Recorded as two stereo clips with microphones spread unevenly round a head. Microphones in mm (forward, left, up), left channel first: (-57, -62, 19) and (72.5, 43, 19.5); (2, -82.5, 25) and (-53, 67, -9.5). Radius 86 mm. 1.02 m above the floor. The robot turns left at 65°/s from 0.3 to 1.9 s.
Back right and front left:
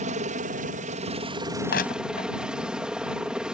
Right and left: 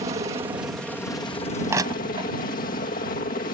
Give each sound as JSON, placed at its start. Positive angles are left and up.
{"t": 0.0, "sound": "a helicopter", "azimuth_deg": 60}
{"t": 1.7, "sound": "crushing", "azimuth_deg": -175}